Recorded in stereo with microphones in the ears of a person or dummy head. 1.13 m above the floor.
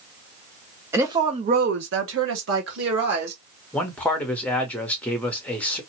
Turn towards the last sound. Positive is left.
turn(degrees=10)  # may be behind; listen again after turning